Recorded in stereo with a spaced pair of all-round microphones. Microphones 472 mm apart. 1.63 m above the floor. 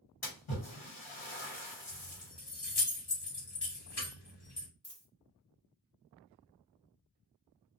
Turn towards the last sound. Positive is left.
turn(degrees=15)  # may be behind; listen again after turning